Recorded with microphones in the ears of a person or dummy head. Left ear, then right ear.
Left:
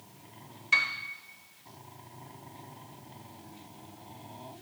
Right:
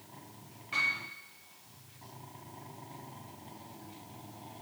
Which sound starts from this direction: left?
A piano, at 0.7 s.